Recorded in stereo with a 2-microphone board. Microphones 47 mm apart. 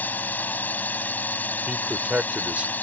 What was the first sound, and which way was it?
A drone, 40° left (ahead or behind).